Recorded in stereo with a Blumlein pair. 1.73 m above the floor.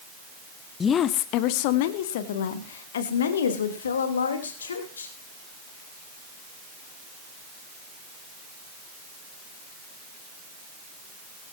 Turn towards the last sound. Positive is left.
turn(degrees=70)